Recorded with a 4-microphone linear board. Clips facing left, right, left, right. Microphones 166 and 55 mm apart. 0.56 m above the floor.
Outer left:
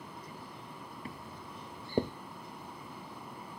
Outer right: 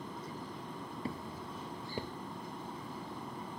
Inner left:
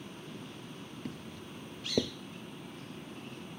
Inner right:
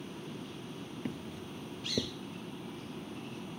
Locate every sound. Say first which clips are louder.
0.0 s an aircraft: outer right 4 dB, inner right 2 dB; 25° right (ahead or behind); by 3.6 s 20° right (ahead or behind)
1.1 s footsteps: outer right 6 dB, inner right 3 dB; 35° right (ahead or behind); by 2.1 s 50° left (ahead or behind)